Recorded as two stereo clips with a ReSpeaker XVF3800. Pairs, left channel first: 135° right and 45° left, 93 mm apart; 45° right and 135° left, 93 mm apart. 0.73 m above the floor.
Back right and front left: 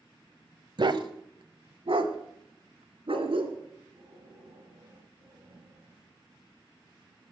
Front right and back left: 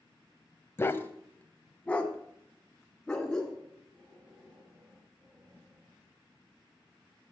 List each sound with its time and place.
0.8 s a dog barking: 15° left, 0.9 m; by 3.6 s 35° left, 2.5 m
3.7 s breathing: 80° left, 9.5 m